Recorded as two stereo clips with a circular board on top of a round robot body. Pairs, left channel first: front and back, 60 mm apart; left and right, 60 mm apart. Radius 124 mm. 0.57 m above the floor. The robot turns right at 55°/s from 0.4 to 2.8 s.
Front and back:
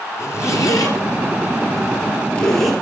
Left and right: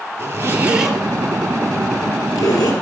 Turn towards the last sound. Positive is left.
turn(degrees=95)